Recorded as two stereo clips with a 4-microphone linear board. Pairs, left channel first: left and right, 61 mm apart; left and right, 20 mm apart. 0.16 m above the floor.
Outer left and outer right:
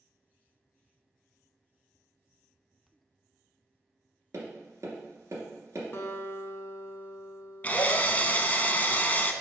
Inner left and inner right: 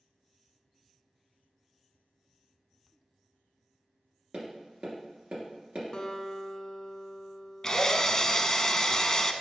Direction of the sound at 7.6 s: 30° left (ahead or behind).